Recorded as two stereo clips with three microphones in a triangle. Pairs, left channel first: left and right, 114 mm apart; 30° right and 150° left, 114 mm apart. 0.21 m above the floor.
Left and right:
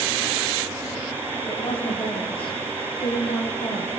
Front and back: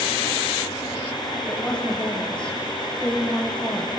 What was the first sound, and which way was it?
A woman speaking, 55° left.